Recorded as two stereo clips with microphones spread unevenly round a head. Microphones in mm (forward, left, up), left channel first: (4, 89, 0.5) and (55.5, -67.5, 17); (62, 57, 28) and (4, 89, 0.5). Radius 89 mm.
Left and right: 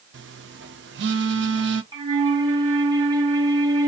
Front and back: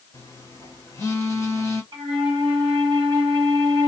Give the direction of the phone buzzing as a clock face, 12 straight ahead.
4 o'clock.